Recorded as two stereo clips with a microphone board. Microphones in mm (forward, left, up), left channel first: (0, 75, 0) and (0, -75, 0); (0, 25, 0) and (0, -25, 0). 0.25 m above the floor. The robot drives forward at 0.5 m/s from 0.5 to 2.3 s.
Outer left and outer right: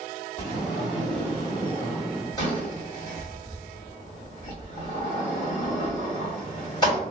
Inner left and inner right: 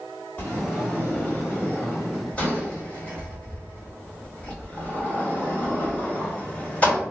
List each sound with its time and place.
0.4 s a sliding door: 25° left (ahead or behind), 1.5 m